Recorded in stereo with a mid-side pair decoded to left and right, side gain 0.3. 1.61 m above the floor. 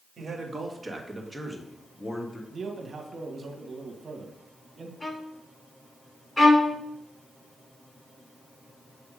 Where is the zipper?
No zipper in this recording.